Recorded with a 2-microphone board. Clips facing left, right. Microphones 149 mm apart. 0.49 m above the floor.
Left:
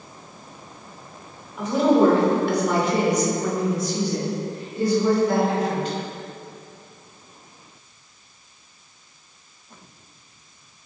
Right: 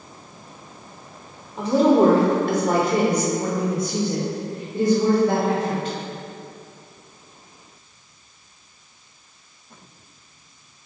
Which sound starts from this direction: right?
A woman speaking, at 1.6 s.